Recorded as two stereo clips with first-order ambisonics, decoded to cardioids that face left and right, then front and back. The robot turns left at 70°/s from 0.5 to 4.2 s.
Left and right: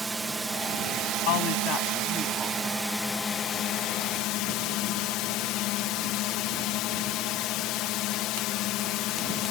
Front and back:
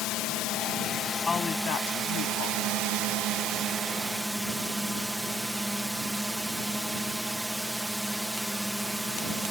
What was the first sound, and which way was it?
A drone, 10° right.